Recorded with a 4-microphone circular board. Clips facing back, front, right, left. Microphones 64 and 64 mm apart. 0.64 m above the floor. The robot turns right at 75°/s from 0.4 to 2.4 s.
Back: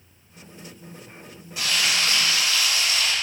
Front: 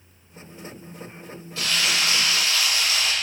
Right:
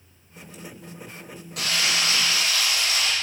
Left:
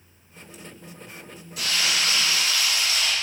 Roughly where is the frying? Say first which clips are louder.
Even, right 1 dB; right.